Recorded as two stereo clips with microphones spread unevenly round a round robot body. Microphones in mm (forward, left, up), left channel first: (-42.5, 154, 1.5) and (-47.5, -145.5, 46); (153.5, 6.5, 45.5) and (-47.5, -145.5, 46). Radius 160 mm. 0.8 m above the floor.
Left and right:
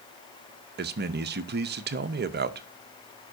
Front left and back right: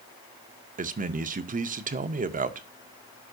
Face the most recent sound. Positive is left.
turn(degrees=-130)